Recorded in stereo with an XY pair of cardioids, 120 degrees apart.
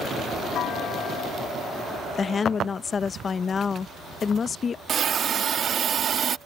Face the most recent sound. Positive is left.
turn(degrees=-45)